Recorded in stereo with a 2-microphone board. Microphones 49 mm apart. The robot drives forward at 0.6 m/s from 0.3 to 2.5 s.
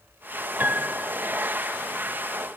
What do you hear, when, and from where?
0.6 s a piano: 35° right (ahead or behind)